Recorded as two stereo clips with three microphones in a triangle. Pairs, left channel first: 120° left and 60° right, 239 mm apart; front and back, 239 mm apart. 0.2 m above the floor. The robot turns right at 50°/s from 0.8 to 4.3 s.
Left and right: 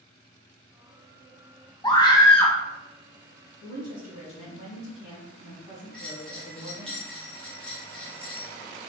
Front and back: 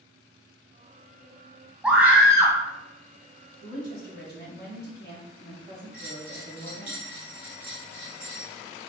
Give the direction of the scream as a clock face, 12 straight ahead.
8 o'clock.